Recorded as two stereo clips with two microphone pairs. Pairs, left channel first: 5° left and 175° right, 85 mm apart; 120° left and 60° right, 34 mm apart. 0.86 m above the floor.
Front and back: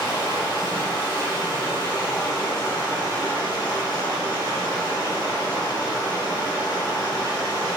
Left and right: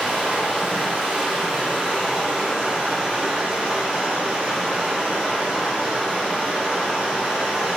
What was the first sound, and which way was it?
Running water, 50° right.